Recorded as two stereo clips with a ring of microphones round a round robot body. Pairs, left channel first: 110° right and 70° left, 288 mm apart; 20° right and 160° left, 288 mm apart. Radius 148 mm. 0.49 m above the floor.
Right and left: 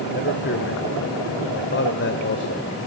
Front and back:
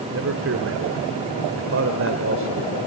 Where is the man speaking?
160° right, 1.8 m.